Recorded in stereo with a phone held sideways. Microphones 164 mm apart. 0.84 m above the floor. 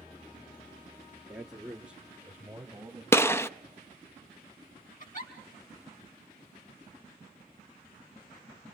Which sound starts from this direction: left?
A giggle, at 5.0 s.